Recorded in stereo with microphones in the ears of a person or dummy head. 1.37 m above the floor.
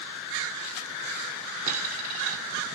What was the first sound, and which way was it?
A dropped coin, 40° right (ahead or behind).